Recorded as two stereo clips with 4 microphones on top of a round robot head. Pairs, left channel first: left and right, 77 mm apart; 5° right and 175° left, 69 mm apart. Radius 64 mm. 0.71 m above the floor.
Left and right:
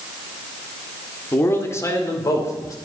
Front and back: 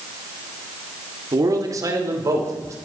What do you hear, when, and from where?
1.3 s a man speaking: 150° left, 1.8 m; by 2.7 s 135° left, 3 m